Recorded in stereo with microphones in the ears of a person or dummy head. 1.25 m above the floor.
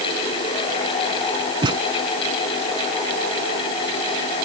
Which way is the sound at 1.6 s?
25° right (ahead or behind).